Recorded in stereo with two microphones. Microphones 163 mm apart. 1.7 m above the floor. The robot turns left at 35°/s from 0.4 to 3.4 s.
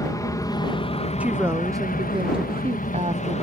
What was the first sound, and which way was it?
An aircraft, 155° left.